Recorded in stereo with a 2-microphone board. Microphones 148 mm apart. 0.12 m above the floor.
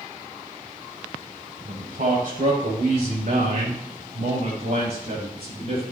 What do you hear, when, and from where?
1.6 s a man speaking: 60° right (ahead or behind), 4.5 m; by 5.9 s 40° right (ahead or behind), 6.5 m